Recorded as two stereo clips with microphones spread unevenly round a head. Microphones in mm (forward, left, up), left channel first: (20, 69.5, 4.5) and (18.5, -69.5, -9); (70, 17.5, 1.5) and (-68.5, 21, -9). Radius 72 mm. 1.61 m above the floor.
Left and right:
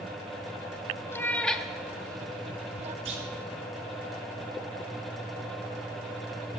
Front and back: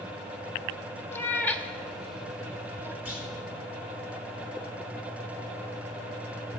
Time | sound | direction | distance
1.1 | a cat meowing | 45° left | 1.2 m
3.0 | a clunk | 100° right | 3.5 m